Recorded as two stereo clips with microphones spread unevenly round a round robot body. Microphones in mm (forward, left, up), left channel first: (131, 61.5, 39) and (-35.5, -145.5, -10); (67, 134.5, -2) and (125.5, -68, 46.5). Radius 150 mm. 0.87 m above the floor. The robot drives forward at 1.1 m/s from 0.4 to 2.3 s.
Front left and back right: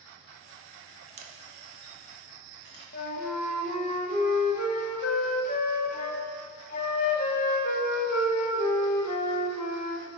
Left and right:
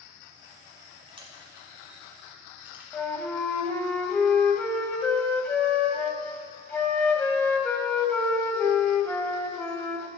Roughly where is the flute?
Left.